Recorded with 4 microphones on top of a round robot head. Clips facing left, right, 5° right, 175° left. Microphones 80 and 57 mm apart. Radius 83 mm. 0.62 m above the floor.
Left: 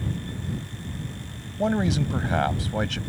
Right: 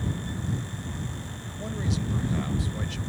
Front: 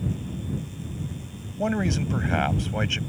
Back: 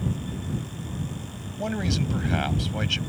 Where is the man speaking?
60° left.